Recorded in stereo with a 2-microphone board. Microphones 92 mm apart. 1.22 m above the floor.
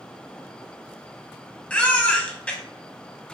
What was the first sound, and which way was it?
A baby crying, 15° left (ahead or behind).